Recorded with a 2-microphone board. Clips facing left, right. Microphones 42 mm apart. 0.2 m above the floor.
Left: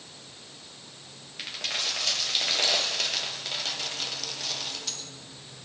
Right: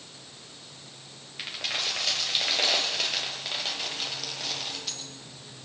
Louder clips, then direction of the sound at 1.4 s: Right 1 dB; 5° right (ahead or behind).